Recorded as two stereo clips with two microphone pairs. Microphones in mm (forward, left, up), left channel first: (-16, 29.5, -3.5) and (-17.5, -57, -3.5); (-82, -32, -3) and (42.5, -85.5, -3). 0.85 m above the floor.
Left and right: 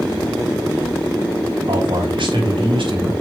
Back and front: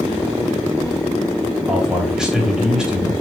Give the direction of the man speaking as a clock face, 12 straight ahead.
4 o'clock.